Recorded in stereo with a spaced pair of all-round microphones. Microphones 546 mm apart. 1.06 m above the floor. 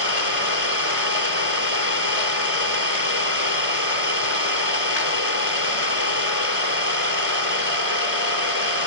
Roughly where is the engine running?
Left.